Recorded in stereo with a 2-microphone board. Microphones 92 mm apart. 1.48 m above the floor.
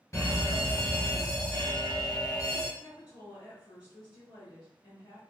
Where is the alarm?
35° left (ahead or behind), 1.4 m.